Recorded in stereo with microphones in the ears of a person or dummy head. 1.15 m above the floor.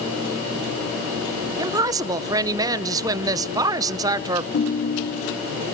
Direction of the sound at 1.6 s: 20° right (ahead or behind).